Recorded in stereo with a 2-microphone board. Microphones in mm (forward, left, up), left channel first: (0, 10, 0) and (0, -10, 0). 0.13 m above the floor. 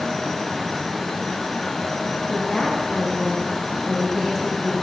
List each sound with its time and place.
2.3 s a woman speaking: 10° left (ahead or behind), 8 m